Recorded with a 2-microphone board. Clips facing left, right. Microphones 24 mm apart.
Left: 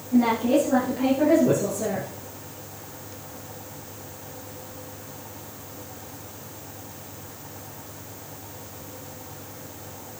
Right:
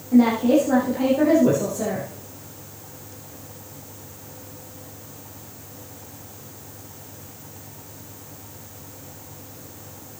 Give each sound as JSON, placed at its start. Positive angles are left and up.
{"t": 0.1, "sound": "a woman speaking", "side_deg": -45, "distance_m": 5.5}